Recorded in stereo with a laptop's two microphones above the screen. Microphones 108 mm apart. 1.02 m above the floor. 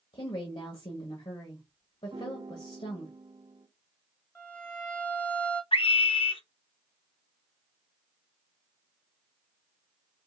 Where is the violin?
15° left (ahead or behind), 1.3 m.